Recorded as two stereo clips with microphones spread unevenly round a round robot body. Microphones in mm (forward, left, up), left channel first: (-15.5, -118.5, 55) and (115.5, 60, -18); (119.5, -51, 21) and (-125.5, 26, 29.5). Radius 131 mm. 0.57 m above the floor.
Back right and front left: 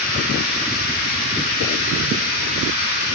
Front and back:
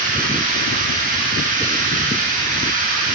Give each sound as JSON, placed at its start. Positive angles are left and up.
{"t": 0.0, "sound": "running water", "azimuth_deg": -135, "distance_m": 5.5}